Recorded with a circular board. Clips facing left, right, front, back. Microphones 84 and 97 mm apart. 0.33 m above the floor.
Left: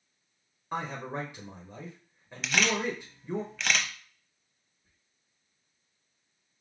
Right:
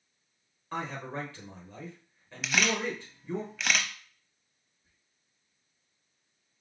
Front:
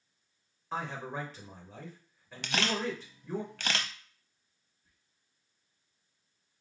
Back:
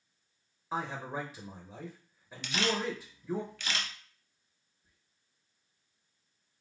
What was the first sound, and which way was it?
A man speaking, 120° left.